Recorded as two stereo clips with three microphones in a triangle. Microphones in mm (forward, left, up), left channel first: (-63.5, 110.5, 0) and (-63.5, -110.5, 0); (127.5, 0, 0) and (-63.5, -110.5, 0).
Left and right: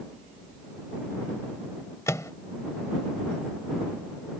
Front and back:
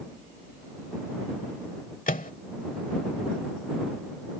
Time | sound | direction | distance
2.1 | a microwave | 25° left | ?